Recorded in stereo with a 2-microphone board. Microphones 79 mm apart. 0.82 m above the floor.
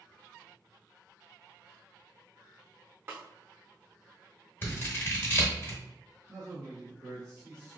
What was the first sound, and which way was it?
A snare drum, 30° right (ahead or behind).